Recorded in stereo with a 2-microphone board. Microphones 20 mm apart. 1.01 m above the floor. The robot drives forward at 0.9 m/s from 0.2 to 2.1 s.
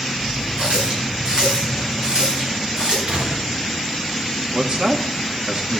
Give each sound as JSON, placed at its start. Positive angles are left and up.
{"t": 0.6, "sound": "a running tap", "side_deg": -50, "distance_m": 8.0}
{"t": 3.1, "sound": "a gunshot", "side_deg": -60, "distance_m": 1.7}
{"t": 4.5, "sound": "a man speaking", "side_deg": -40, "distance_m": 1.5}